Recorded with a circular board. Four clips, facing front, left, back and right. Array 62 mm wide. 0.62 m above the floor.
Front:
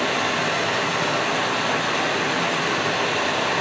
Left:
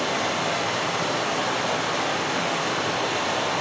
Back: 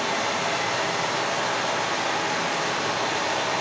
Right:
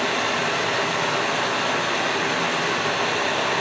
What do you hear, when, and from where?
0.0 s running water: 35° right, 6 m